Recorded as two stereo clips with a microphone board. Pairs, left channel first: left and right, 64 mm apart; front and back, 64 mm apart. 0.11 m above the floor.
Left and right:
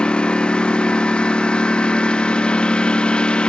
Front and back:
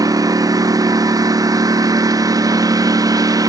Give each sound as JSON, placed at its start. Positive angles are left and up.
{"t": 0.0, "sound": "a lawn mower", "azimuth_deg": 165}